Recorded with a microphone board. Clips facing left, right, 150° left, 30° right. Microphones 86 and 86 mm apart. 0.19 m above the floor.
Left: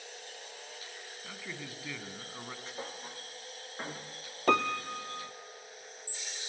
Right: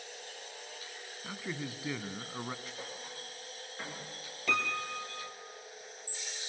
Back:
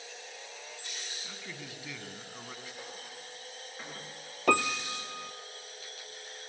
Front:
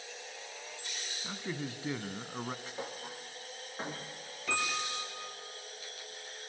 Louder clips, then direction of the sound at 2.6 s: Left 2 dB, front 4 dB; 30° left.